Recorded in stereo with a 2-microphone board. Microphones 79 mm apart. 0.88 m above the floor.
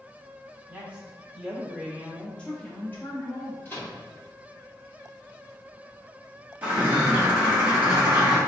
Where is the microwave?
25° left (ahead or behind), 1.8 m.